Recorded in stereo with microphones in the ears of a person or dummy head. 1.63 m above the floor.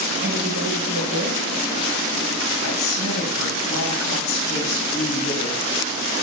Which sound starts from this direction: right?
A woman speaking, at 0.2 s.